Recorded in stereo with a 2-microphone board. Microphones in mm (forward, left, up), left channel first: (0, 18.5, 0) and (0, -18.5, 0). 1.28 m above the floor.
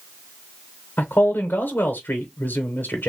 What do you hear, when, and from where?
1.0 s a man speaking: 65° left (ahead or behind), 1.1 m